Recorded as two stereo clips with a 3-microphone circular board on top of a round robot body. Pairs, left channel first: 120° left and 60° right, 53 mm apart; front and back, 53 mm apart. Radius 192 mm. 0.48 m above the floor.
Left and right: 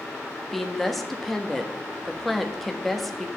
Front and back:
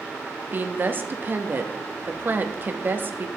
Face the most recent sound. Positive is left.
turn(degrees=-155)